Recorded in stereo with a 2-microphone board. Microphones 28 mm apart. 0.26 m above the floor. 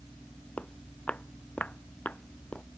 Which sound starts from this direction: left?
Footsteps, at 0.6 s.